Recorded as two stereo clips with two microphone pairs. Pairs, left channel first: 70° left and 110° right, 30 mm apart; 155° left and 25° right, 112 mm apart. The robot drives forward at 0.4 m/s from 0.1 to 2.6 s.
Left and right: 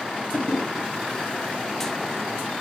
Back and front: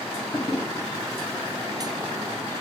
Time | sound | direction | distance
0.3 | a toilet flushing | 105° left | 1.6 m